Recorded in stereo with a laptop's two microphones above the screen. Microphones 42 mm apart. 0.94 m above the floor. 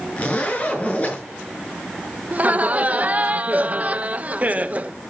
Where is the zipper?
30° left (ahead or behind), 6 m.